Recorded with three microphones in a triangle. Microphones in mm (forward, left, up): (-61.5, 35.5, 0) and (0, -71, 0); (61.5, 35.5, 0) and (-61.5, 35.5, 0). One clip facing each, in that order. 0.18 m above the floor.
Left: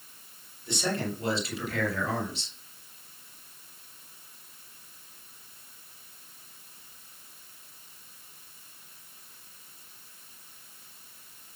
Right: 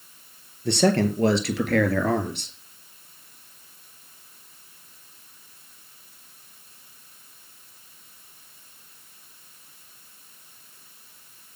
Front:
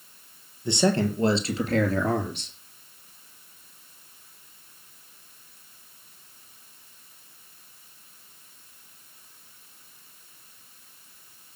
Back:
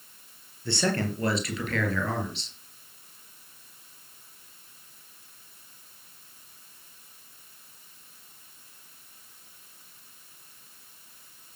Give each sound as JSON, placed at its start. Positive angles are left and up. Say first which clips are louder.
{"t": 0.7, "sound": "a man speaking", "louder": "right 11 dB, front 5 dB", "azimuth_deg": -70, "distance_m": 3.5}